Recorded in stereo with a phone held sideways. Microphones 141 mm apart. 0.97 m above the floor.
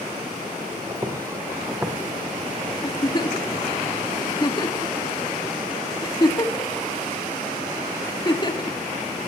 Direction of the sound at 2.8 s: 30° left (ahead or behind).